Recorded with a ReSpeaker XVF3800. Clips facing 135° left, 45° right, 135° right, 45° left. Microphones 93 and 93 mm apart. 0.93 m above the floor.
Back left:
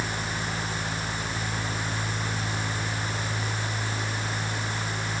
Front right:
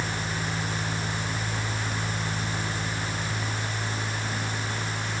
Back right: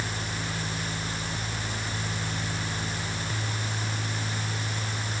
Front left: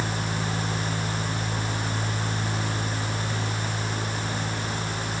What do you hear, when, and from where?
Only background noise.